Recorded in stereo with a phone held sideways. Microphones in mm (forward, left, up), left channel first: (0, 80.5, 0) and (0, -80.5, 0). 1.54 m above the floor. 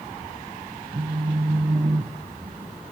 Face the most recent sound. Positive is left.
turn(degrees=-45)  # may be behind; listen again after turning